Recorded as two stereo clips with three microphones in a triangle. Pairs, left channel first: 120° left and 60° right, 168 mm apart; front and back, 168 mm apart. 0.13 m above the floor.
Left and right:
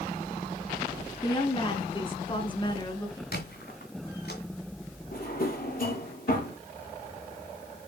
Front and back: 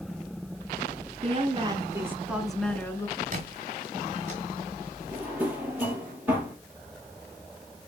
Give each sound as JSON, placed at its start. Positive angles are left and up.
{"t": 1.2, "sound": "a woman speaking", "azimuth_deg": 165, "distance_m": 1.3}
{"t": 3.3, "sound": "a squeak", "azimuth_deg": 135, "distance_m": 2.0}
{"t": 5.1, "sound": "a drawer", "azimuth_deg": 100, "distance_m": 2.0}